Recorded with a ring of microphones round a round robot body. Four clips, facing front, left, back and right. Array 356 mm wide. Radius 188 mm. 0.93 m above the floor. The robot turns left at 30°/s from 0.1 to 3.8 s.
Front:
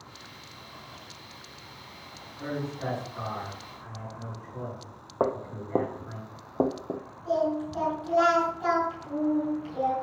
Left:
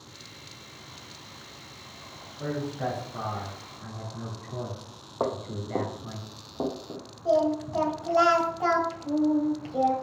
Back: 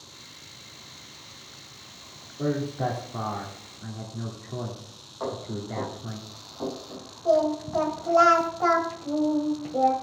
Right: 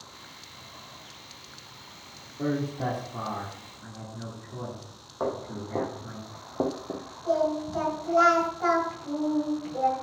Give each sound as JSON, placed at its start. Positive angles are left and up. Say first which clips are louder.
{"t": 2.4, "sound": "a man speaking", "louder": "right 2 dB, back 6 dB", "azimuth_deg": -145, "distance_m": 2.5}
{"t": 5.2, "sound": "footsteps", "louder": "left 1 dB, front 4 dB", "azimuth_deg": 20, "distance_m": 1.8}
{"t": 7.2, "sound": "singing", "louder": "left 2 dB, back 4 dB", "azimuth_deg": 165, "distance_m": 1.9}